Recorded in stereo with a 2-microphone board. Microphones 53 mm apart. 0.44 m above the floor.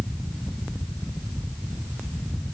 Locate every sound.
Only background noise.